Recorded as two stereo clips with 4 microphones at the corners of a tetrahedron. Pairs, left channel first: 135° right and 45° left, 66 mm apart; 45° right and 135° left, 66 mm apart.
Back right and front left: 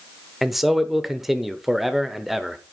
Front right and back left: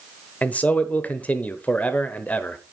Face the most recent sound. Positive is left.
turn(degrees=-40)